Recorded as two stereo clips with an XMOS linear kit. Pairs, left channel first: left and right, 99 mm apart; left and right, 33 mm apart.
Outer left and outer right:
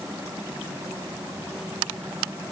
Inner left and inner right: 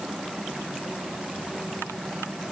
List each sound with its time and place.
Only background noise.